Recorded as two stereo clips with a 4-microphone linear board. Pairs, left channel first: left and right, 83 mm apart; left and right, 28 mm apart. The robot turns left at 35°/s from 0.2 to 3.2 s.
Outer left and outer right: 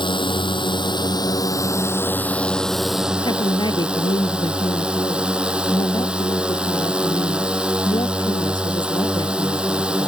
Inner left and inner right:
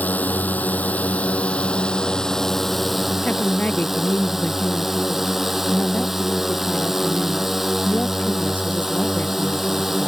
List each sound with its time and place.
0.0 s a drone: 95° left; by 10.1 s 10° right
3.2 s a woman speaking: 70° left (ahead or behind)